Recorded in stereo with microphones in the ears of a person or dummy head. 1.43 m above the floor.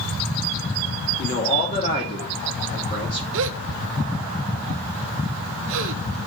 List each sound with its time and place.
1.2 s a man speaking: 35° left (ahead or behind), 2 m
3.3 s a gasp: 70° right (ahead or behind), 0.6 m